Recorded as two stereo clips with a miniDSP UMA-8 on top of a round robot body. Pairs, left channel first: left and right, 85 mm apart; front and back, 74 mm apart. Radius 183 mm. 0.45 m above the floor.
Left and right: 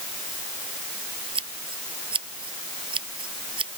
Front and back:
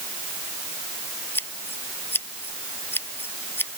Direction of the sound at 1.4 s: 60° right.